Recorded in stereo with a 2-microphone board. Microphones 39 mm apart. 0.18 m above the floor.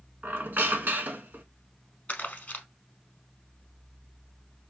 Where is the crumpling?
40° left (ahead or behind), 0.9 m.